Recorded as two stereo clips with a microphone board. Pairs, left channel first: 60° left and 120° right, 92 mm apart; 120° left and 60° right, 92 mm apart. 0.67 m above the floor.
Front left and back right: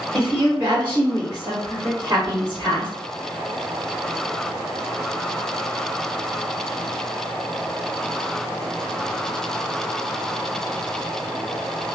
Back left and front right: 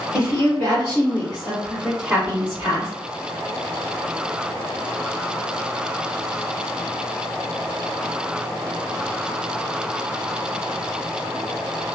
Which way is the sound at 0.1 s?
175° left.